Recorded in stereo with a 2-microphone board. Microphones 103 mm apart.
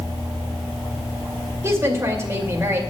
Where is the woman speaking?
25° right (ahead or behind), 2 m.